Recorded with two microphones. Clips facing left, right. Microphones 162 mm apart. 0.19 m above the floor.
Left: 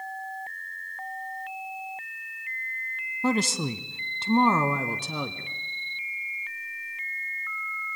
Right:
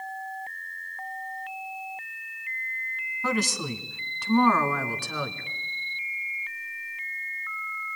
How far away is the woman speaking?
About 1.2 m.